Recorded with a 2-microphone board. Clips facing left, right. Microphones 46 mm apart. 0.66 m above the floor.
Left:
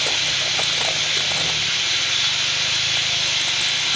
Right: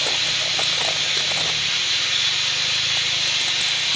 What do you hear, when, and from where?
0.0 s running water: 70° left (ahead or behind), 4 m